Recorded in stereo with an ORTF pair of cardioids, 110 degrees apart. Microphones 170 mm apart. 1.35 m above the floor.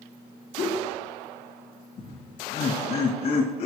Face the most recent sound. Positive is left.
turn(degrees=50)